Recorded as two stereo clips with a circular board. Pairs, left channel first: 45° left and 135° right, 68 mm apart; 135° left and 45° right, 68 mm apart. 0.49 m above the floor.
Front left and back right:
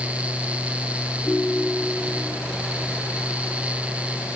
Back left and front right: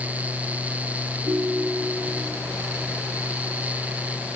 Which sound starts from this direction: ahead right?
A ringtone, at 1.3 s.